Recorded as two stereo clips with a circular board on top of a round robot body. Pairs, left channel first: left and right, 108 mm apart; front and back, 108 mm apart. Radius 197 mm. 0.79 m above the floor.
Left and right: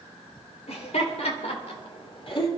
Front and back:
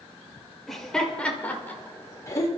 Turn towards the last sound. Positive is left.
turn(degrees=55)